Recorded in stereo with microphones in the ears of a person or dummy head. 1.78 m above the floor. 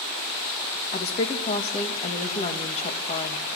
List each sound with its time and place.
0.9 s a woman speaking: 35° left (ahead or behind), 2 m